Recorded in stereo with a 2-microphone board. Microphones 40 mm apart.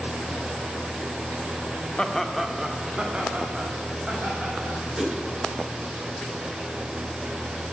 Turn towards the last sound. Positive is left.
turn(degrees=-20)  # may be behind; listen again after turning